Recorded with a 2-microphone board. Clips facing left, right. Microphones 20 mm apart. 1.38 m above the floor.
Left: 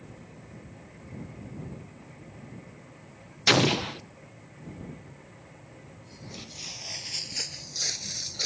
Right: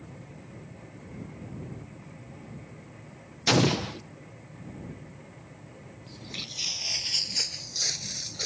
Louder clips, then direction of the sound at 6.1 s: Right 6 dB; 50° right (ahead or behind).